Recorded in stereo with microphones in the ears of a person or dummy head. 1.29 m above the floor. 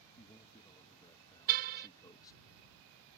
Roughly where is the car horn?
Right.